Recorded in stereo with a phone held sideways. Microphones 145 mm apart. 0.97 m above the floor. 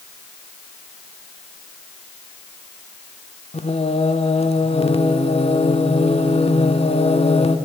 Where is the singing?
45° left (ahead or behind), 1.0 m.